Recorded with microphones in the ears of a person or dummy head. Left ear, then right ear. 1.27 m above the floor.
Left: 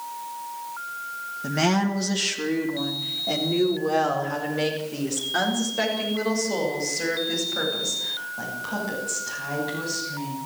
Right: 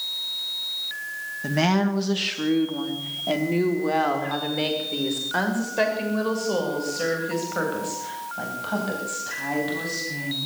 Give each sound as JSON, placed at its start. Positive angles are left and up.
{"t": 1.4, "sound": "a woman speaking", "side_deg": -15, "distance_m": 1.9}